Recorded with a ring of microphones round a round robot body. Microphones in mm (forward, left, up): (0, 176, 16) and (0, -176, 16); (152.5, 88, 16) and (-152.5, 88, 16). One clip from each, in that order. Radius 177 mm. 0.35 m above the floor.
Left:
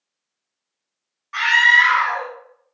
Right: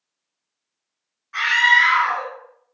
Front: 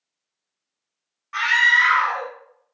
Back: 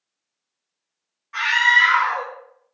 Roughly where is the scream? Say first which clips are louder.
Left 2 dB, even; ahead left.